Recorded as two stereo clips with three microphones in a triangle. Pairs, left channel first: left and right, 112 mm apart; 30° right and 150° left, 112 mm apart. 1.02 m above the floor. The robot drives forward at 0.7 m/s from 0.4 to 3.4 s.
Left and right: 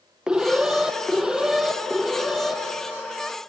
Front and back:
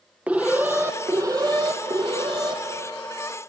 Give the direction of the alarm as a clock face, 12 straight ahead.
5 o'clock.